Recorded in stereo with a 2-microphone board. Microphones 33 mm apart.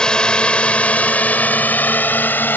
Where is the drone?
20° left (ahead or behind); by 2.6 s 70° left (ahead or behind).